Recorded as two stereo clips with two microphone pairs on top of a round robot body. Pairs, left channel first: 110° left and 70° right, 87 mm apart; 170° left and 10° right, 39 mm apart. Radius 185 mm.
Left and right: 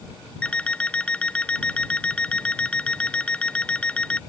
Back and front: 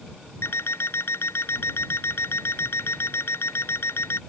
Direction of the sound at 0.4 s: 175° right.